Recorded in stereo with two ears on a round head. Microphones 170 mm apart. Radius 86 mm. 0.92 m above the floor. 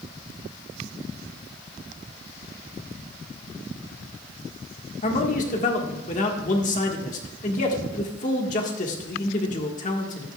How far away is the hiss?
I don't hear a hiss.